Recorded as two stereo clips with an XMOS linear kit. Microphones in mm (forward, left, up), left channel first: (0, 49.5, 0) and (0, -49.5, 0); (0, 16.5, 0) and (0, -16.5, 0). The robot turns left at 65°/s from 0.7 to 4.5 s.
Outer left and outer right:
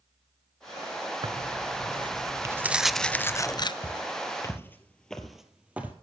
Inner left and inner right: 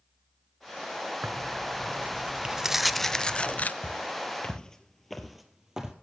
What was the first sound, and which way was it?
Tearing paper, 70° right.